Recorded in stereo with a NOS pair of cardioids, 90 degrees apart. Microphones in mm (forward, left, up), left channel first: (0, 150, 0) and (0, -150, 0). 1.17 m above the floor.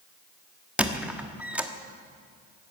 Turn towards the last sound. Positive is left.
turn(degrees=-5)